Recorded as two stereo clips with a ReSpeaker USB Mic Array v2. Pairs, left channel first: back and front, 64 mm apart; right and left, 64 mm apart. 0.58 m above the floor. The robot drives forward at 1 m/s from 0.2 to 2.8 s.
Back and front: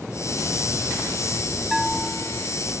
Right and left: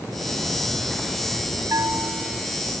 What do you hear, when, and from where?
1.7 s a bell: 90° left; by 2.5 s 110° left